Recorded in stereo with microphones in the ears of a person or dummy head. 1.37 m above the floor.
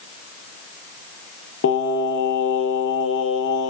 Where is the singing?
70° left (ahead or behind), 0.8 m.